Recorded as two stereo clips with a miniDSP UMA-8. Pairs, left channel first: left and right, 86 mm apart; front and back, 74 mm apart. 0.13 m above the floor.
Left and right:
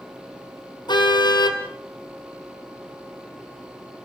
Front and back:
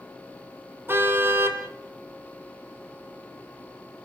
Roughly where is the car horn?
Behind left.